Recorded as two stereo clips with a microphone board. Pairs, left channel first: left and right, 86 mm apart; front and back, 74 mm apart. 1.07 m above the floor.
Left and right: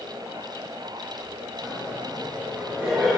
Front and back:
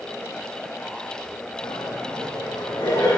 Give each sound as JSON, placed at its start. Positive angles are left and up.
{"t": 1.6, "sound": "laughter", "azimuth_deg": -25, "distance_m": 9.5}